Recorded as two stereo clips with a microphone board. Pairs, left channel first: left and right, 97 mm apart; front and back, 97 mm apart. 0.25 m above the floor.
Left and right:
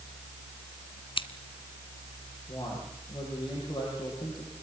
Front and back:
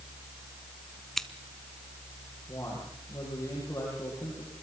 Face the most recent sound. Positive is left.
turn(degrees=60)